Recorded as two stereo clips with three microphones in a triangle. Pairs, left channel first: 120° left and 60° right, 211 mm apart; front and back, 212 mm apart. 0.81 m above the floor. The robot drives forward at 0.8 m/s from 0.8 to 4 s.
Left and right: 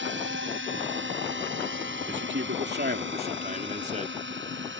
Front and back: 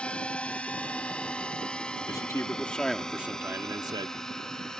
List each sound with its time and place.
0.0 s a drone: 85° right
2.1 s a man speaking: 70° right; by 4.2 s 110° right